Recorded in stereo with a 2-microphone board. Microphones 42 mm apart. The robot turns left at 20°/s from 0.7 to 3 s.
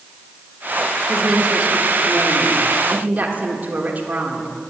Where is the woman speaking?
35° right, 1.2 m; by 4.5 s 70° right, 1.2 m.